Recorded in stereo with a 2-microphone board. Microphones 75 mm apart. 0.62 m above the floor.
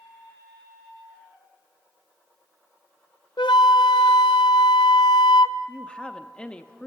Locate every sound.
3.4 s a flute: 80° left, 0.6 m
5.7 s a woman speaking: 15° left (ahead or behind), 0.7 m